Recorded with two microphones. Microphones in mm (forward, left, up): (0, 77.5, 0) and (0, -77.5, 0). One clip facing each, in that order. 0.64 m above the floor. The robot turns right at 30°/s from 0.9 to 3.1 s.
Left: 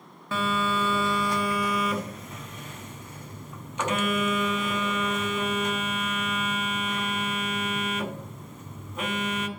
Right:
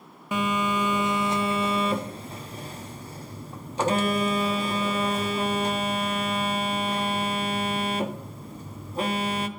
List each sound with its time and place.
0.3 s a phone buzzing: 150° right, 0.7 m; by 9.5 s 85° right, 0.7 m